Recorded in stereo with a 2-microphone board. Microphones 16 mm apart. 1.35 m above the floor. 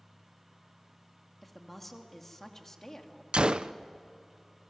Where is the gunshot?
75° right (ahead or behind), 0.6 m.